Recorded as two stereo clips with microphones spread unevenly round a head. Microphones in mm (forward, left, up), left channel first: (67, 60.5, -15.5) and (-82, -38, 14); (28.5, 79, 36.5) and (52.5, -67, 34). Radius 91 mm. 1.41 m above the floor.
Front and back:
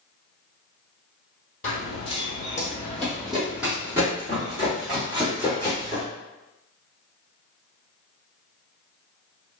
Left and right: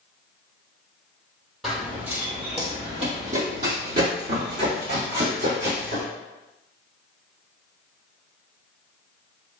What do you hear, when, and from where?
1.6 s running footsteps: 10° left, 1.6 m; by 6.0 s 90° right, 4 m